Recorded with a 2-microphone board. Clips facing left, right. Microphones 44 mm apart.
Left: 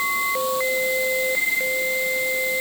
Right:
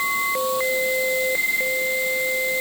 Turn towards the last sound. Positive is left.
No sound to turn to.